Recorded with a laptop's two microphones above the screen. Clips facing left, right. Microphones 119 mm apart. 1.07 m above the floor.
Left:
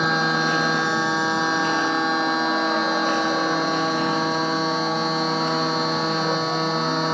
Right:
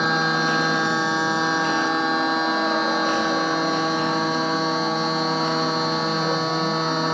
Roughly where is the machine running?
Centre.